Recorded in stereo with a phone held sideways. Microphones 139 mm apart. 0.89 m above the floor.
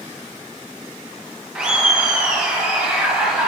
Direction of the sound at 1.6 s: 5° right (ahead or behind).